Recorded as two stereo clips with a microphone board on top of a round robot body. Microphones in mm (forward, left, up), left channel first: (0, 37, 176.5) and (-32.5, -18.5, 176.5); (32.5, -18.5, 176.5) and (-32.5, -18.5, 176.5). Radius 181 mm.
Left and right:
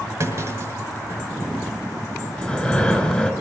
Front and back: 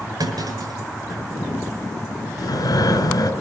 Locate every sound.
0.2 s a clunk: 175° right, 5.5 m
2.4 s breathing: 15° right, 3 m